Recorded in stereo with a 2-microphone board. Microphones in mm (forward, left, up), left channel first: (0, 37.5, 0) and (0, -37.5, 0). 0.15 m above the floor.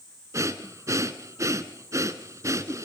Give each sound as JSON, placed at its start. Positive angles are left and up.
{"t": 0.3, "sound": "breathing", "side_deg": -45, "distance_m": 1.0}